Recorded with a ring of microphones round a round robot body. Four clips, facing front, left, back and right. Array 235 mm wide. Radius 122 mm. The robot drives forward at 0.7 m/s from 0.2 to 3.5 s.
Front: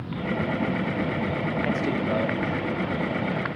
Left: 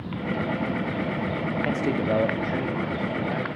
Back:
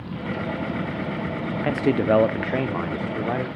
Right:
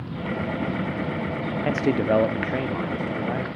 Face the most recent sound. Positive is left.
turn(degrees=-170)